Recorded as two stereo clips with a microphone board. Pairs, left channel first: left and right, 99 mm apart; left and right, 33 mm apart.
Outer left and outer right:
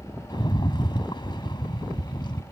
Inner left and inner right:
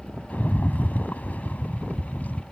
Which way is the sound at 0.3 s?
50° left (ahead or behind).